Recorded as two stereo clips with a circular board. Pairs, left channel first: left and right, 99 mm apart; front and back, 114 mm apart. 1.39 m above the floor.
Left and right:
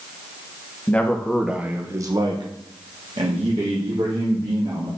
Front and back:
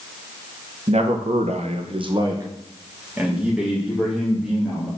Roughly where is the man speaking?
Behind.